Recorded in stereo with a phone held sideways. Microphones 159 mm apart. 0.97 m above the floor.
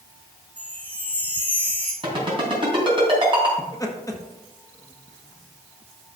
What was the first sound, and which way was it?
A chime, 10° left (ahead or behind).